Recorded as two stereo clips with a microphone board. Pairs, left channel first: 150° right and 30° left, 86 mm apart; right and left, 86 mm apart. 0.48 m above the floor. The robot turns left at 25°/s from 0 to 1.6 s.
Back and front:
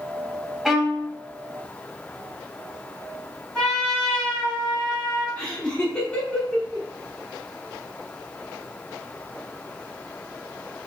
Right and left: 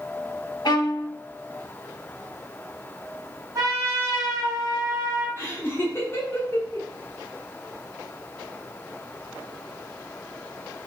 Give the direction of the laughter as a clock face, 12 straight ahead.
3 o'clock.